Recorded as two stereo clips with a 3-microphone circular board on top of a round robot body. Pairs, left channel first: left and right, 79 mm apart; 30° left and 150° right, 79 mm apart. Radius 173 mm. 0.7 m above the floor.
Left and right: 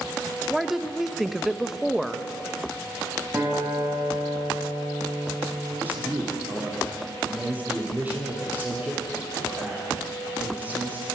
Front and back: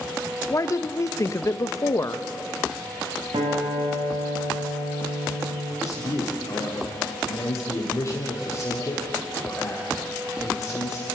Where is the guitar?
155° right, 6.5 m.